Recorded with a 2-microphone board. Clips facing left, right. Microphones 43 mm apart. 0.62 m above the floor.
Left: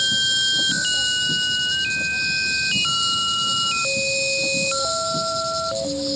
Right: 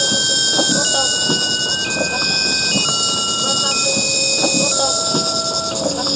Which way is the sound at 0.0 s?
65° right (ahead or behind).